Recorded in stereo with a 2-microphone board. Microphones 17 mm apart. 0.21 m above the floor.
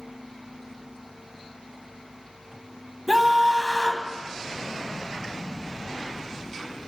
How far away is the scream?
About 1.6 m.